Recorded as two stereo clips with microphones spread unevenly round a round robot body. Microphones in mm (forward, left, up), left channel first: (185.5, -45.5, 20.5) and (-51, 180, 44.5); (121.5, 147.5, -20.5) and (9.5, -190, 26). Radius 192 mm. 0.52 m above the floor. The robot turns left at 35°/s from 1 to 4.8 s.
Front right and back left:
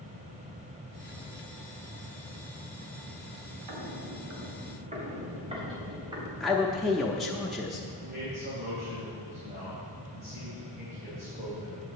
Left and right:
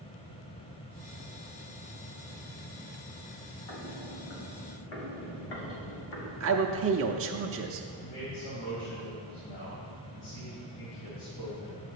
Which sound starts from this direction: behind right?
A man speaking, at 6.4 s.